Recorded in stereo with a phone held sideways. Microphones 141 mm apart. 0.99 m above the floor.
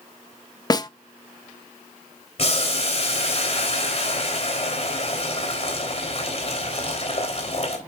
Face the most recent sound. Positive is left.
turn(degrees=45)  # may be behind; listen again after turning